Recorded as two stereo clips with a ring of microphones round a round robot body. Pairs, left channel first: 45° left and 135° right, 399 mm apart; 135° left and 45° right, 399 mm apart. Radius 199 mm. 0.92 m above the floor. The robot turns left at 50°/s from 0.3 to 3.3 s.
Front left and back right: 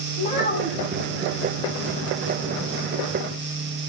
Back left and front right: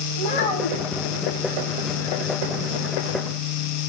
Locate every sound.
0.2 s a child speaking: 120° left, 5 m; by 1.0 s 85° left, 5 m